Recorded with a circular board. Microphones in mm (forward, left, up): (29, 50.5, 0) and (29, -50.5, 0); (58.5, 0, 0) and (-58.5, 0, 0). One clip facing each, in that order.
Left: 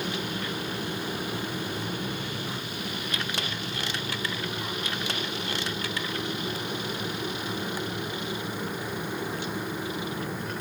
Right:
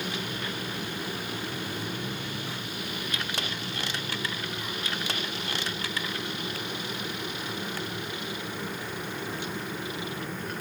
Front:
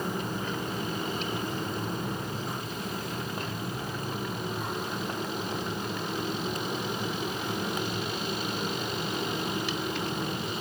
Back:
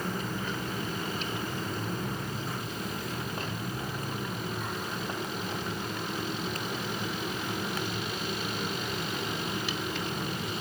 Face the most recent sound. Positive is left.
No sound to turn to.